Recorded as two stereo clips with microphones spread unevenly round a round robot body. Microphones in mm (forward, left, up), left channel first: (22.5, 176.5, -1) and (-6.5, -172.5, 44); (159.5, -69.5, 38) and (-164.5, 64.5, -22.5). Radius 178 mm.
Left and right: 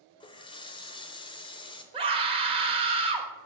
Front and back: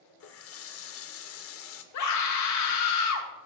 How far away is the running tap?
About 0.6 m.